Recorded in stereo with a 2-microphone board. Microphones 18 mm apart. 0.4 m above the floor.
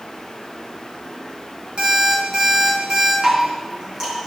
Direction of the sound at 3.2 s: 35° right (ahead or behind).